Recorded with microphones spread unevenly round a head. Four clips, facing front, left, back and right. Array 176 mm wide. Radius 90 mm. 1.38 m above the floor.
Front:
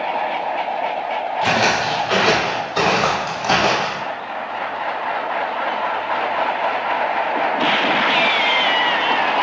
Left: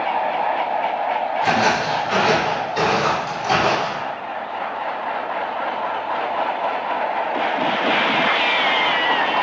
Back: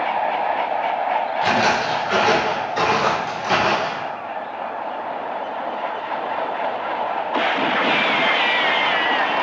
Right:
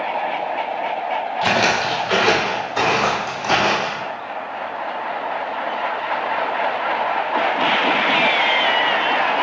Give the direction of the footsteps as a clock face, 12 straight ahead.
2 o'clock.